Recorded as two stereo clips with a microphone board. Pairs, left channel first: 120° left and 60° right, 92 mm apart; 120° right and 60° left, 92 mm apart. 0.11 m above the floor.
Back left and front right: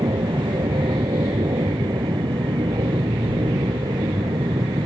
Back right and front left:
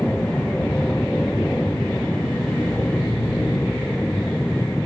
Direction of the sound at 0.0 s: 45° right.